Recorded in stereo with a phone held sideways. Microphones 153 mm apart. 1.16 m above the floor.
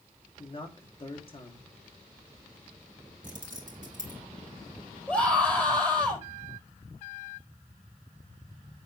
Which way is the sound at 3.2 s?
60° right (ahead or behind).